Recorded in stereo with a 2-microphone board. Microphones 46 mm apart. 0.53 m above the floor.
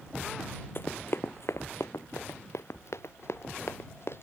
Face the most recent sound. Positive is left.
turn(degrees=60)  # may be behind; listen again after turning